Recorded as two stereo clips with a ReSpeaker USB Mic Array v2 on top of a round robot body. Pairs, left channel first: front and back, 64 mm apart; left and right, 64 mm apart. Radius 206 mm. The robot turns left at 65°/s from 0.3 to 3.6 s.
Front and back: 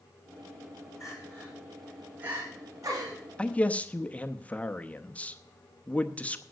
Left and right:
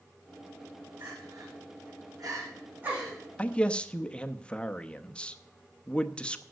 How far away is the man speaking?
About 1.1 m.